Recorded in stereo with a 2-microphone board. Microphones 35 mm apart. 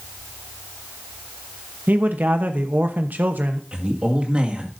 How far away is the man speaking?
About 0.9 m.